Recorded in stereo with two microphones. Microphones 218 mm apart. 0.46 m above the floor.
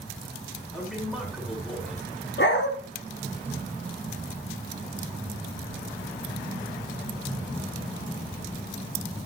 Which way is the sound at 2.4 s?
55° left (ahead or behind).